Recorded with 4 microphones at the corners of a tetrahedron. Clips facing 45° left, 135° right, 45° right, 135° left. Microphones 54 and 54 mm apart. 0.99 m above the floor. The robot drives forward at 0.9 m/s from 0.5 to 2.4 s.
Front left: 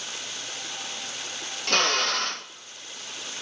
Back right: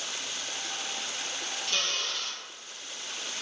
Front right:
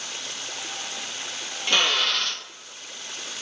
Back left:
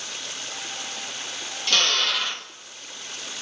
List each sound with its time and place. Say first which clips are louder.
1.7 s a drill: front left 10 dB, front right 1 dB; 25° left, 0.9 m; by 2.5 s 70° left, 0.5 m